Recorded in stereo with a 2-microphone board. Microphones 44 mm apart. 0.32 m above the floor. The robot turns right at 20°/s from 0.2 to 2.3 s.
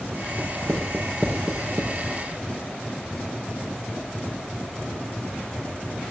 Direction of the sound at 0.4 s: 60° right (ahead or behind).